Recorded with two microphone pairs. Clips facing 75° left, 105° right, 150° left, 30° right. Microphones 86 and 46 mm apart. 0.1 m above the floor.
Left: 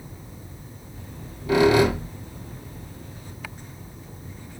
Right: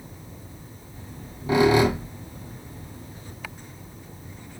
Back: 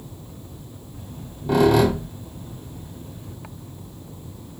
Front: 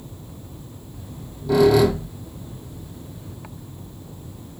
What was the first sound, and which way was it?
A squeak, 175° right.